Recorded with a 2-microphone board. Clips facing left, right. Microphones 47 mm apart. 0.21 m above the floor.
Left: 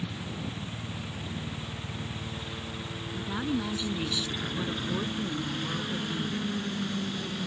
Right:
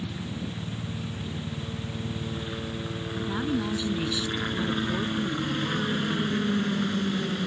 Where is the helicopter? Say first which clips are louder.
Right 2 dB; 30° right (ahead or behind).